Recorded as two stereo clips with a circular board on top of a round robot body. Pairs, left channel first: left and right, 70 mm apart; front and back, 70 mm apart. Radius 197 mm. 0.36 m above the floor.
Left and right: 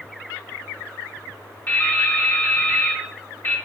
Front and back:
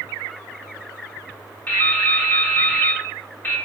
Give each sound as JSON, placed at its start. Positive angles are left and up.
{"t": 1.7, "sound": "dripping", "azimuth_deg": 45, "distance_m": 1.2}